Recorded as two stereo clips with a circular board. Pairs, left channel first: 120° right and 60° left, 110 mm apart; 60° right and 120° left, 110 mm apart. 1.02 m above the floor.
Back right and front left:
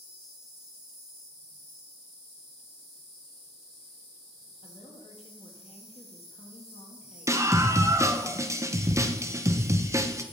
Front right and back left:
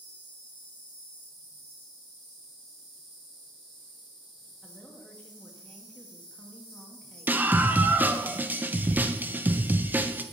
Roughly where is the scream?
Ahead left.